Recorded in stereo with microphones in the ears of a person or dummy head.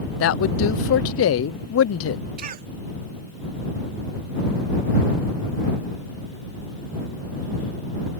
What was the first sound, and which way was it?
A man speaking, 70° left (ahead or behind).